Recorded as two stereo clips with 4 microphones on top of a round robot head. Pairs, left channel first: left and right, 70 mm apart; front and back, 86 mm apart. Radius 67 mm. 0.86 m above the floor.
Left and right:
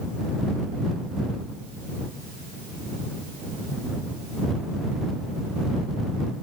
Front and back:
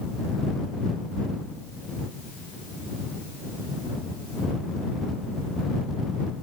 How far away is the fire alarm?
I don't hear a fire alarm.